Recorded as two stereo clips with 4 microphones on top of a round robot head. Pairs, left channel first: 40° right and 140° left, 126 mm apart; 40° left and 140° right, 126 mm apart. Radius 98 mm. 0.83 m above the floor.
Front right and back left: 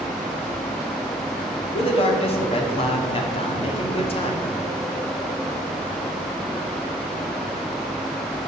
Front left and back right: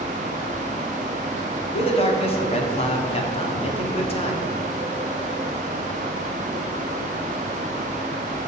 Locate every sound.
1.7 s a man speaking: straight ahead, 2 m